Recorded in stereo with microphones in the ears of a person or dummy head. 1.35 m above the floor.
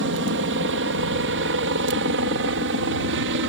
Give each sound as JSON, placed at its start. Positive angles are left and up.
{"t": 0.0, "sound": "a helicopter", "side_deg": -60}